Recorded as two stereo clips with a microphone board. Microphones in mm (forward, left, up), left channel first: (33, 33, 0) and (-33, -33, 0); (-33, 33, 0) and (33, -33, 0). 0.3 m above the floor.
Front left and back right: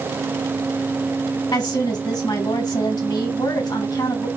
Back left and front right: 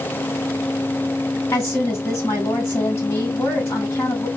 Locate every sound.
1.5 s a woman speaking: 80° left, 2 m